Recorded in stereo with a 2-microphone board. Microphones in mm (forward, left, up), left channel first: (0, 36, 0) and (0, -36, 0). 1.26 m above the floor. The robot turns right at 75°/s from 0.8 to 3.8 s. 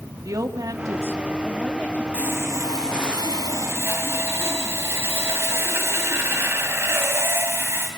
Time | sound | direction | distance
0.2 | a woman speaking | 55° right | 2.0 m
2.1 | sawing | 160° right | 3 m